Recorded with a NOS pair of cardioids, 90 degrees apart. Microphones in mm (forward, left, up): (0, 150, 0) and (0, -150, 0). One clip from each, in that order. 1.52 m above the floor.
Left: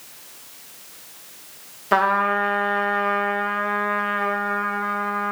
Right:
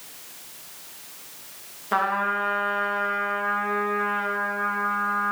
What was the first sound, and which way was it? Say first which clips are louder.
A trumpet: left 5 dB; 30° left.